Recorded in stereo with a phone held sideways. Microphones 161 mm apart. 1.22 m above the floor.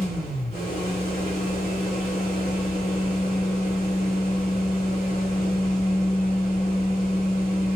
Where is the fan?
50° left (ahead or behind), 3.5 m.